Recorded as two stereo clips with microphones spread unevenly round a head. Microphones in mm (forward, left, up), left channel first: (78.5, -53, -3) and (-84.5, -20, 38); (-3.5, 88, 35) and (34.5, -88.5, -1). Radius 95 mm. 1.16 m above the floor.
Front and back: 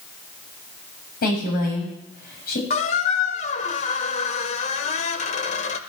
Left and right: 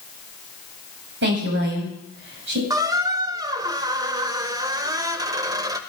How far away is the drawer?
No drawer in this recording.